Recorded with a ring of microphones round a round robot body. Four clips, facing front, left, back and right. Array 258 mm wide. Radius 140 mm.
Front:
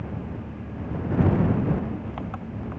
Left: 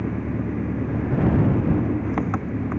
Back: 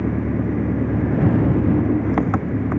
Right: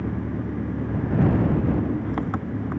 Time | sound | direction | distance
0.0 | an engine running | 175° left | ?